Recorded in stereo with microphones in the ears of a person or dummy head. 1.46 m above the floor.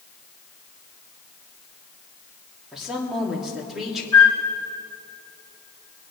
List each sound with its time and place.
2.7 s a woman speaking: 5° right (ahead or behind), 3 m
4.1 s a flute: 15° left (ahead or behind), 3.5 m